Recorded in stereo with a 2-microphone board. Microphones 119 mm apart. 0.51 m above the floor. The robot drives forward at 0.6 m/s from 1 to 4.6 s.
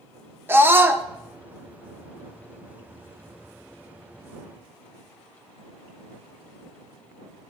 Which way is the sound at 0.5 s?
20° right (ahead or behind).